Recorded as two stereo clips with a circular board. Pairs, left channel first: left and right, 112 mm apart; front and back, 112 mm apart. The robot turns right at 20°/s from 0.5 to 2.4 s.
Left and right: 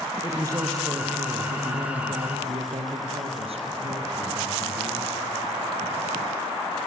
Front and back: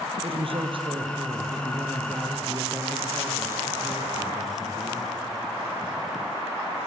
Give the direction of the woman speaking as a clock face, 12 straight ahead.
5 o'clock.